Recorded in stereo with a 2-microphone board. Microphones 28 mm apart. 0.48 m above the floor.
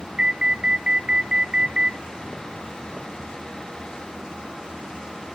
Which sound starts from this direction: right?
An alarm, at 0.2 s.